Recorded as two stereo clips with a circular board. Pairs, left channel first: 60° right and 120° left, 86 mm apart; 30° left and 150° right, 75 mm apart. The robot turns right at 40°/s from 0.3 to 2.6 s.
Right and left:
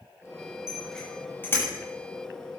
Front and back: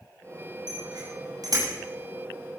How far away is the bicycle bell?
About 9.5 m.